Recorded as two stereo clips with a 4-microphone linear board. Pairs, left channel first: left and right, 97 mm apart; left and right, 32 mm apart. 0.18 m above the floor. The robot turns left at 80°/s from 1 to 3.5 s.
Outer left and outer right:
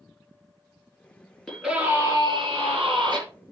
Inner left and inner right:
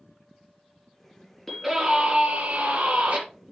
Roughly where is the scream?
Ahead.